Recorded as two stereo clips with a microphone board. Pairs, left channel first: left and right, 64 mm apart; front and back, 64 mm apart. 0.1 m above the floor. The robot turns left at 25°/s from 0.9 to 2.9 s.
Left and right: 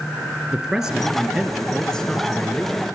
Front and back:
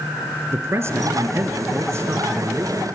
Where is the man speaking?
175° right, 1.7 m; by 2.9 s 140° left, 1.7 m.